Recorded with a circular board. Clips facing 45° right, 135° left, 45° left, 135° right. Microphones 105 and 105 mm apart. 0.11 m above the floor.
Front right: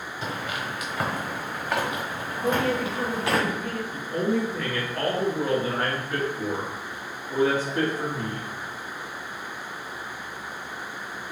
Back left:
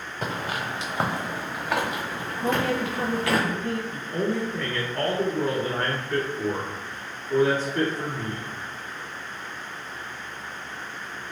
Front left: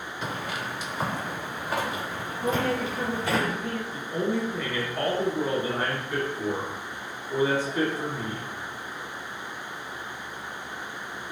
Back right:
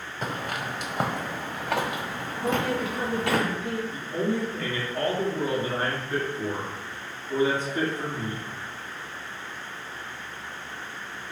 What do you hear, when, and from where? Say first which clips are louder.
0.2 s footsteps: back left 2 dB, back right 2 dB; 175° left, 0.9 m; by 3.4 s 110° right, 1.8 m
2.4 s a woman speaking: even, even; 160° left, 1.4 m
3.9 s a man speaking: front right 5 dB, front left 1 dB; 110° right, 1.2 m